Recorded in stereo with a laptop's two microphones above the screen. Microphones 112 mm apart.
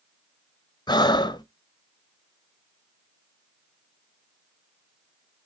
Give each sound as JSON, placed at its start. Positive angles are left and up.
{"t": 0.9, "sound": "breathing", "side_deg": 35, "distance_m": 0.7}